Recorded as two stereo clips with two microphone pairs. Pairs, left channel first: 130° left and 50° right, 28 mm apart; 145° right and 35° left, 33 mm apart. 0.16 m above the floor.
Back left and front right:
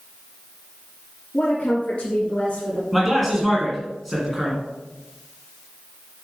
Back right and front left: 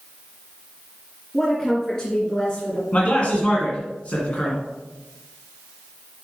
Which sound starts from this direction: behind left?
A woman speaking, at 1.3 s.